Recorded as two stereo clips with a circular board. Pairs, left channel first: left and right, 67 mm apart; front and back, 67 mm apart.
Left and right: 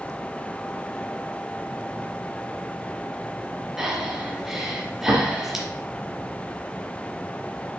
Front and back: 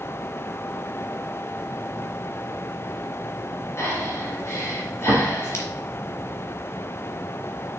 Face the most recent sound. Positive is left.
turn(degrees=-10)